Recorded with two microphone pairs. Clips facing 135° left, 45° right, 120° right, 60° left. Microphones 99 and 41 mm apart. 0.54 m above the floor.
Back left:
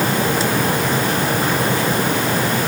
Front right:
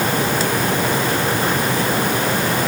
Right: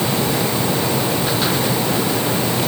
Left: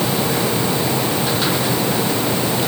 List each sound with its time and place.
Only background noise.